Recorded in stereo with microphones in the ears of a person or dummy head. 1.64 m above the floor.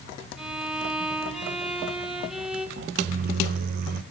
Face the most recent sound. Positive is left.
turn(degrees=-50)  # may be behind; listen again after turning